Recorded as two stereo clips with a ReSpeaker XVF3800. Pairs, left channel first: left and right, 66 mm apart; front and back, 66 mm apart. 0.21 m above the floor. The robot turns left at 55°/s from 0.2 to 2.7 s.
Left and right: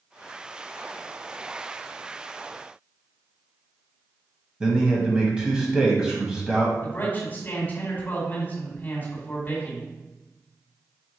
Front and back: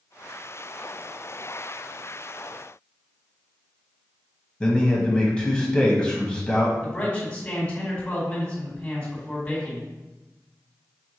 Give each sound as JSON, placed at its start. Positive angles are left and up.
{"t": 4.6, "sound": "a man speaking", "azimuth_deg": -45, "distance_m": 1.2}
{"t": 6.8, "sound": "a man speaking", "azimuth_deg": 60, "distance_m": 1.7}